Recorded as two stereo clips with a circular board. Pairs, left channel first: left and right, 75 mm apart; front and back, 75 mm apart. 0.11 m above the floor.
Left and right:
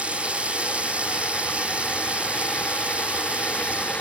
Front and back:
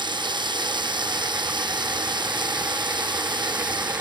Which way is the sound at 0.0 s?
165° right.